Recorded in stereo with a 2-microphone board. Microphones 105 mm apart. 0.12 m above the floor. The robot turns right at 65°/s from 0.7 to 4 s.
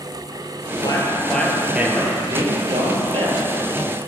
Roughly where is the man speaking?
Behind left.